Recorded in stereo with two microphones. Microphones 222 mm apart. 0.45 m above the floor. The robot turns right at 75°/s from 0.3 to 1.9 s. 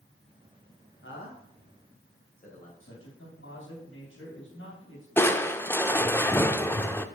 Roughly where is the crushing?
Centre.